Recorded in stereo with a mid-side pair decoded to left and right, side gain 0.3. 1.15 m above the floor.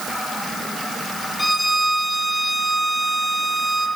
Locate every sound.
1.4 s a violin: 10° left, 4 m